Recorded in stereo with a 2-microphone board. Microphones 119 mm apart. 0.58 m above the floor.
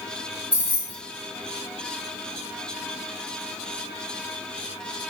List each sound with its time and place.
0.5 s keys jangling: 45° left (ahead or behind), 2 m